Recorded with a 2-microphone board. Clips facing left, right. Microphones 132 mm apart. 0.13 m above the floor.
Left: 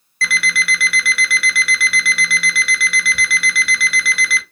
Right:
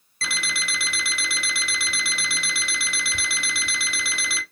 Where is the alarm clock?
25° right (ahead or behind), 0.7 m.